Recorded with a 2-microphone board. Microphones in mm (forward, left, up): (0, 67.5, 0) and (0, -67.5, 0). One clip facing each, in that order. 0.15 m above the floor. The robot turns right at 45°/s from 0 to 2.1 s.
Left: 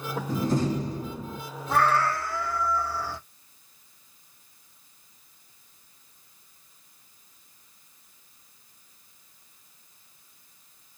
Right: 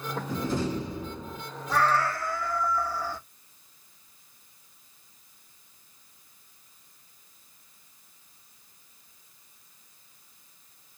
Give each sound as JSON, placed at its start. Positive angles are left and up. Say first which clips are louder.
{"t": 0.3, "sound": "a door slam", "louder": "left 4 dB", "azimuth_deg": 70, "distance_m": 1.3}
{"t": 1.7, "sound": "a cat meowing", "louder": "left 2 dB", "side_deg": 65, "distance_m": 2.0}